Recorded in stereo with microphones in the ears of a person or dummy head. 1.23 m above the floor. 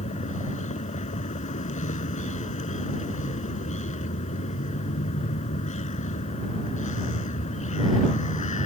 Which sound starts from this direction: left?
A vehicle, at 0.0 s.